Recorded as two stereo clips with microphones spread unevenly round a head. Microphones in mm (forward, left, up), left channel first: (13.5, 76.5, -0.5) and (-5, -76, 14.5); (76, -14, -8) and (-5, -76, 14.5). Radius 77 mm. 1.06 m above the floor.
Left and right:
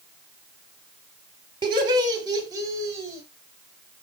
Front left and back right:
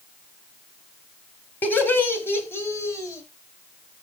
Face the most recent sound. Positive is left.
turn(degrees=-25)